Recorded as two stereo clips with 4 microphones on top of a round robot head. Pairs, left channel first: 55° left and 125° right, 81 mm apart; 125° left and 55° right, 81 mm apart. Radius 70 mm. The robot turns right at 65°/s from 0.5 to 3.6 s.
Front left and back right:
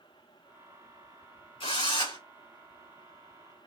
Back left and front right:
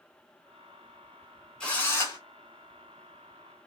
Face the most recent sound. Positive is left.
turn(degrees=175)